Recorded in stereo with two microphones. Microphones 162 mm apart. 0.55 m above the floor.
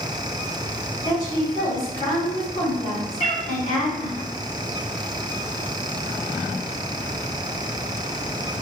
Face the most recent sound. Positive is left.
turn(degrees=40)  # may be behind; listen again after turning